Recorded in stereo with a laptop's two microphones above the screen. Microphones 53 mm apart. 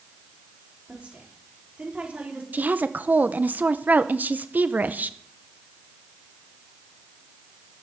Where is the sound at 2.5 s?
35° right (ahead or behind), 0.7 m.